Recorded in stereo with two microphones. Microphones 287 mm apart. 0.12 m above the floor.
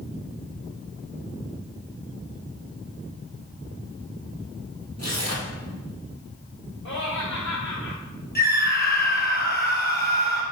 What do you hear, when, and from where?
5.0 s tearing paper: 60° right (ahead or behind), 2.5 m
6.8 s laughter: 45° left (ahead or behind), 2.5 m
8.3 s a scream: 35° left (ahead or behind), 2.5 m